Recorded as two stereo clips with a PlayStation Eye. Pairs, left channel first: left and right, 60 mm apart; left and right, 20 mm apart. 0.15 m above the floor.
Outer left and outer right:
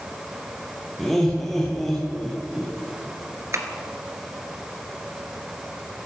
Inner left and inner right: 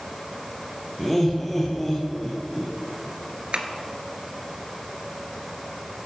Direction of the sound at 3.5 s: 55° right (ahead or behind).